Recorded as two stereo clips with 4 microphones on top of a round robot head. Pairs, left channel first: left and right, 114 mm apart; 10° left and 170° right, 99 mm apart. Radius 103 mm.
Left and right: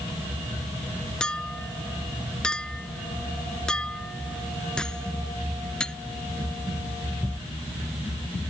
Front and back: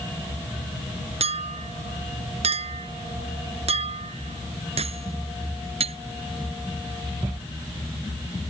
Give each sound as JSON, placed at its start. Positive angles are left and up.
{"t": 1.2, "sound": "a clink", "azimuth_deg": 175}